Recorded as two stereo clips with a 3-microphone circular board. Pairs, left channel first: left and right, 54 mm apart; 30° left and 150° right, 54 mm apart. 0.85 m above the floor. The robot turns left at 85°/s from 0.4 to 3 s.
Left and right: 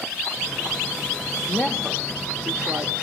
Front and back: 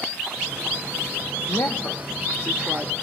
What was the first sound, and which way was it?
A woman speaking, 45° left.